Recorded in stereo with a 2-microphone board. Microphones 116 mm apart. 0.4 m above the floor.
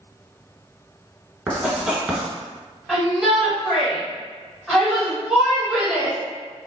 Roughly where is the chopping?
No chopping in this recording.